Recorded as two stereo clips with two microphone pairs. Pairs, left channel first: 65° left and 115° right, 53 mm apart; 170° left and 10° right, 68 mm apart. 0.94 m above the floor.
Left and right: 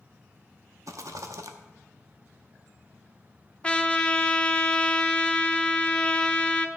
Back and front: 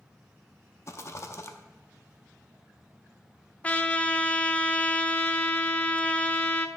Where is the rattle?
135° right, 0.8 m.